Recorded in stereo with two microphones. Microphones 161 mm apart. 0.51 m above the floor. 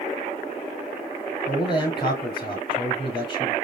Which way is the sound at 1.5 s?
35° left (ahead or behind).